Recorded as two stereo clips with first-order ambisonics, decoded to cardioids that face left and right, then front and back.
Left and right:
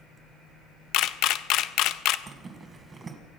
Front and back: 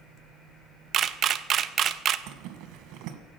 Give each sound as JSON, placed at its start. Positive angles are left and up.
{"t": 0.9, "sound": "a camera shutter", "azimuth_deg": 125, "distance_m": 0.5}
{"t": 2.3, "sound": "a zipper", "azimuth_deg": -160, "distance_m": 1.6}